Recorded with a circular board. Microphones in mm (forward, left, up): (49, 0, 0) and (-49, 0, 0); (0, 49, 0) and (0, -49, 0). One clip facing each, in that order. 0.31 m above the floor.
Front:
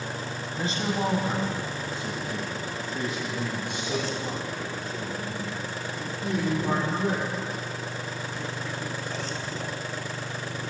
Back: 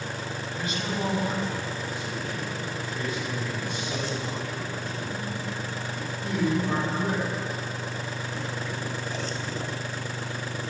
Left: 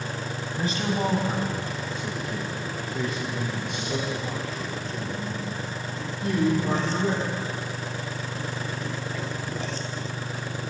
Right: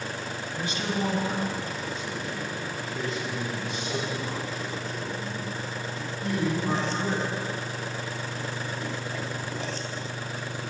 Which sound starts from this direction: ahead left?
A man speaking, at 0.6 s.